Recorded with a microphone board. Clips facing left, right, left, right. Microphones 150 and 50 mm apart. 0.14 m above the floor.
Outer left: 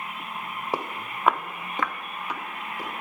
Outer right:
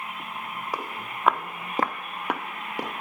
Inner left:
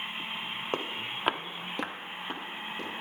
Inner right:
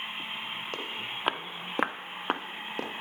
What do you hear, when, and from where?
0.7 s footsteps: 30° left (ahead or behind), 0.9 m; by 2.9 s 80° right, 1.3 m